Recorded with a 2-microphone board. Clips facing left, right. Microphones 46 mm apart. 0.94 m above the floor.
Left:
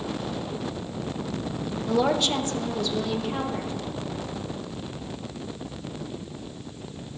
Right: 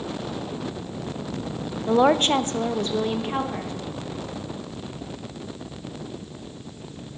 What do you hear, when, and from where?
1.9 s a woman speaking: 30° right (ahead or behind), 0.5 m